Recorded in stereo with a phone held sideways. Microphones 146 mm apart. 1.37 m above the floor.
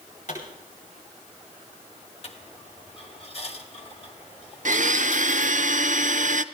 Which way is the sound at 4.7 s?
60° right (ahead or behind).